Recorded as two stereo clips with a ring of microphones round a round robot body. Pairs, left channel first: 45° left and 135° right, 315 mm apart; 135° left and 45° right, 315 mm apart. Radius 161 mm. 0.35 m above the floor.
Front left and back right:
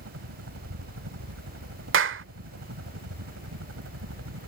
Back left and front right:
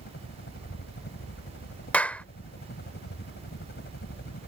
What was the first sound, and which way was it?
A helicopter, 170° right.